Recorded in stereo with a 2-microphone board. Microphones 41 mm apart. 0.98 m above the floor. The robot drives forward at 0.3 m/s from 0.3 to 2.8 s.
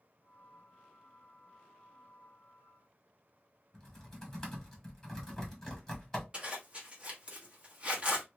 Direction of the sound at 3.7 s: 10° left (ahead or behind).